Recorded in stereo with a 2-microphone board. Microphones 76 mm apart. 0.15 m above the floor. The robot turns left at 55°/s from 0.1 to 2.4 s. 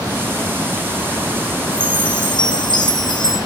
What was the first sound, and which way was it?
A chime, 110° left.